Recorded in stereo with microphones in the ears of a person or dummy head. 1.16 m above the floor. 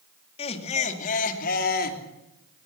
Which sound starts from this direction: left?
Laughter, at 0.4 s.